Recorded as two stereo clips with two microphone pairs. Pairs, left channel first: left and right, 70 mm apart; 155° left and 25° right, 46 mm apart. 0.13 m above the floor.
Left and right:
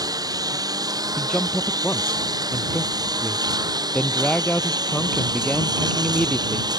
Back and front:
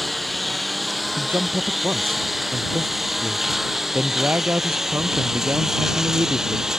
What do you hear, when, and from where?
0.0 s a lawn mower: 115° right; by 6.8 s 105° right
1.2 s a man speaking: 15° left